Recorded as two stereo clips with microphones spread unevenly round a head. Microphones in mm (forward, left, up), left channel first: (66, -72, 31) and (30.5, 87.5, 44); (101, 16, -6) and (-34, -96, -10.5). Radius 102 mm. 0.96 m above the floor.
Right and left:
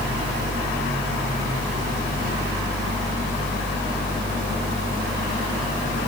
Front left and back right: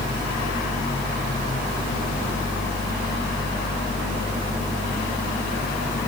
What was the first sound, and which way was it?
Only background noise.